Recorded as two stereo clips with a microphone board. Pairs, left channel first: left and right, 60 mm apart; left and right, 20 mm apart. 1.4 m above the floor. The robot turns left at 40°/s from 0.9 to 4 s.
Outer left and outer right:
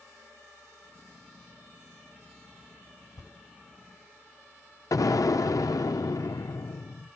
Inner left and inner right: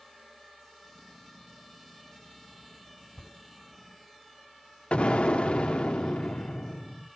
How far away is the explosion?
About 0.8 m.